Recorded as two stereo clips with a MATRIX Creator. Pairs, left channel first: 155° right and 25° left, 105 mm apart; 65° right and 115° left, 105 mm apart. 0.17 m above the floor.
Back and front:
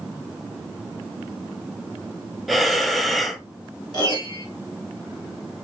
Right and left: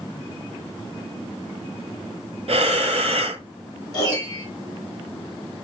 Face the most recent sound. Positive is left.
turn(degrees=-115)